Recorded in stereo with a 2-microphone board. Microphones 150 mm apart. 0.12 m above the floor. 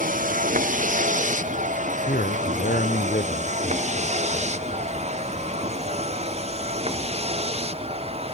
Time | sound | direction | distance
0.0 | a vehicle | 65° right (ahead or behind) | ?
2.1 | a man speaking | 80° left | ?